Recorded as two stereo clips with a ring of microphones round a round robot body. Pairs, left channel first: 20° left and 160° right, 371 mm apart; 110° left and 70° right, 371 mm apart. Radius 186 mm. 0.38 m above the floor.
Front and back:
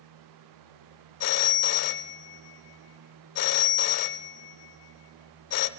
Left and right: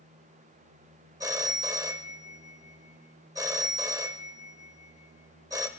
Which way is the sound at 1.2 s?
10° left.